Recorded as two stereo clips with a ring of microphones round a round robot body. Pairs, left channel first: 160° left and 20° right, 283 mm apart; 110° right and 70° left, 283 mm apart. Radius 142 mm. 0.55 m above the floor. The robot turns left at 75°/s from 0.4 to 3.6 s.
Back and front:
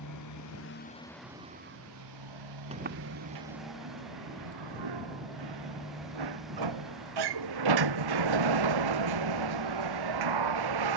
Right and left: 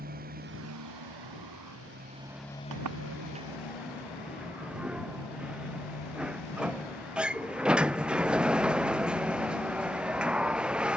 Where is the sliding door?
50° left; by 11.0 s 20° right.